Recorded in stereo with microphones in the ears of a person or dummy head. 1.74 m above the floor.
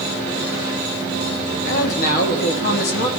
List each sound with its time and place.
1.6 s a man speaking: 50° left (ahead or behind), 1.0 m